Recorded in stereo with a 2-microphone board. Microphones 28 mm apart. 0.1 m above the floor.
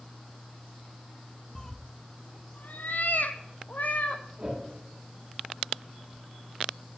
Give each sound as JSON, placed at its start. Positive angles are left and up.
{"t": 1.6, "sound": "a cat meowing", "side_deg": 10, "distance_m": 0.6}
{"t": 4.4, "sound": "a whoosh", "side_deg": -25, "distance_m": 5.0}